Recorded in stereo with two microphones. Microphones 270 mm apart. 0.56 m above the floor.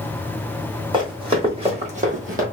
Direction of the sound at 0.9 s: 15° right (ahead or behind).